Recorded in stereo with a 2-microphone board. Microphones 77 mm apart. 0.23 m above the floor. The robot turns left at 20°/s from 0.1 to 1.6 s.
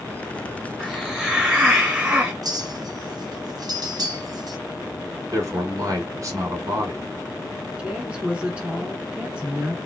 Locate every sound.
0.8 s a hiss: 5° right (ahead or behind), 1.7 m; by 2.3 s 15° right (ahead or behind), 1.7 m
2.4 s a clink: 55° right (ahead or behind), 1.3 m
5.3 s a man speaking: 45° right (ahead or behind), 1.9 m
7.8 s a woman speaking: 15° right (ahead or behind), 2 m